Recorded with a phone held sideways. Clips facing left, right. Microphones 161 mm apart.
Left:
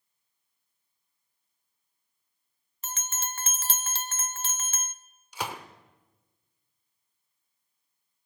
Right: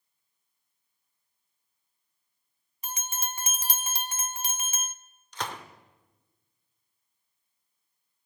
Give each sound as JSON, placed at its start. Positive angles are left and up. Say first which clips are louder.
{"t": 2.8, "sound": "a bell", "louder": "right 1 dB", "side_deg": -15, "distance_m": 0.9}
{"t": 5.3, "sound": "a gunshot", "louder": "left 1 dB", "side_deg": 10, "distance_m": 1.4}